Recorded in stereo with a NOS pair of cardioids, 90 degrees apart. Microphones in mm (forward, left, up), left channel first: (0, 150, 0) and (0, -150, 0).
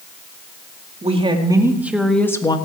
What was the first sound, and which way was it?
A woman speaking, 20° right.